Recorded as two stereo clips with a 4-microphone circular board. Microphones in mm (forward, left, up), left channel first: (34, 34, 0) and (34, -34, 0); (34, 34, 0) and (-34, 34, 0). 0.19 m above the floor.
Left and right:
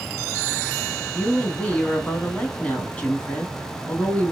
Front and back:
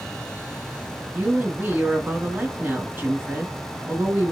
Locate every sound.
1.1 s a woman speaking: 150° left, 1.3 m